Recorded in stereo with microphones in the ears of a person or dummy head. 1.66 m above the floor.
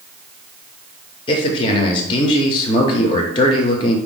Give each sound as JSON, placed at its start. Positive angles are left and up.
{"t": 1.3, "sound": "a man speaking", "side_deg": 20, "distance_m": 0.6}